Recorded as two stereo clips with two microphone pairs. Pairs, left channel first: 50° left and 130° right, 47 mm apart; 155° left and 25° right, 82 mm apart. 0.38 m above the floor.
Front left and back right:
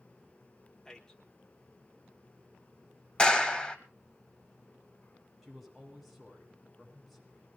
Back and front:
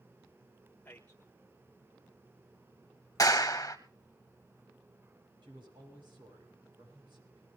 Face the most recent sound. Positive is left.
turn(degrees=-40)